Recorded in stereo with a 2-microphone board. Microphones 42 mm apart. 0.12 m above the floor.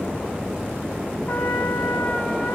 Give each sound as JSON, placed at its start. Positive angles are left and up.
{"t": 1.3, "sound": "a trumpet", "side_deg": 50, "distance_m": 2.0}